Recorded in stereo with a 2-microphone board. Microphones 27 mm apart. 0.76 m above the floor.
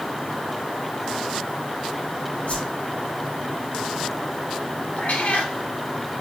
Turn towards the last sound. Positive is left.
turn(degrees=80)